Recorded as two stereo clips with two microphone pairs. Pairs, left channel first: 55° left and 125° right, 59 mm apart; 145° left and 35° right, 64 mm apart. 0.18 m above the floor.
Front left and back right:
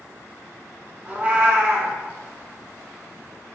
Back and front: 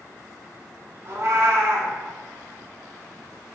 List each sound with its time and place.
1.1 s a cat meowing: 60° right, 0.9 m